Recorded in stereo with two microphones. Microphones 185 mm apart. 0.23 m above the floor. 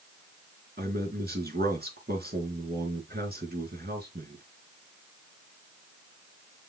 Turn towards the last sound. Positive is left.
turn(degrees=-60)  # may be behind; listen again after turning